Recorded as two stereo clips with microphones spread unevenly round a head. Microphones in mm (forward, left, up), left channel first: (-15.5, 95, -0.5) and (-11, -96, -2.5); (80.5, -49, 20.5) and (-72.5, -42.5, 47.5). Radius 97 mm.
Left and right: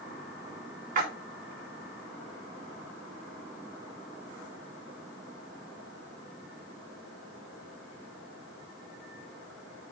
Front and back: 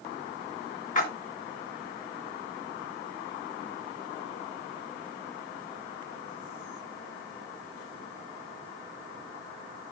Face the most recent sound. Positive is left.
turn(degrees=-40)